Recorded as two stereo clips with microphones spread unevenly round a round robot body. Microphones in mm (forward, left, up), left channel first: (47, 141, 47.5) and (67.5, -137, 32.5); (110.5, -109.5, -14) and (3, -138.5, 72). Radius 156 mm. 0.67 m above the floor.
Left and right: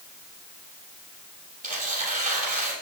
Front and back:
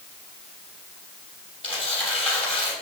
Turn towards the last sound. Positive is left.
turn(degrees=-25)